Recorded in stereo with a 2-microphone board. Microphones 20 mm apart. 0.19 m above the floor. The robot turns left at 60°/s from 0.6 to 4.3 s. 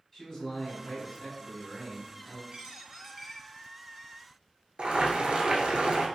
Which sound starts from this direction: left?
A man speaking, at 0.1 s.